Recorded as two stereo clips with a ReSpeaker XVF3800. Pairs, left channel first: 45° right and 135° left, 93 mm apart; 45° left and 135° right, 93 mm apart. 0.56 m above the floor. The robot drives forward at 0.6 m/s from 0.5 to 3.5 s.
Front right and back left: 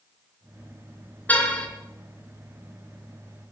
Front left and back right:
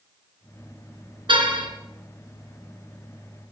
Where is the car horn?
115° right, 3.5 m; by 1.7 s 120° right, 3.5 m.